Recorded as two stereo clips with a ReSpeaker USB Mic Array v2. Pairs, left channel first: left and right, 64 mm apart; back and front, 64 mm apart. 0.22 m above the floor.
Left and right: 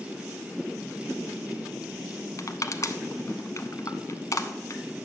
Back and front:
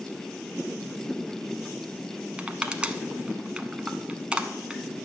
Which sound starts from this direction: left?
Crushing, at 2.4 s.